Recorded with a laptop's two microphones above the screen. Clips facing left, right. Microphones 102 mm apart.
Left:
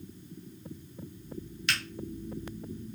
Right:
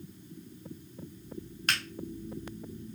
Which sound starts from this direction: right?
A finger snap, at 1.7 s.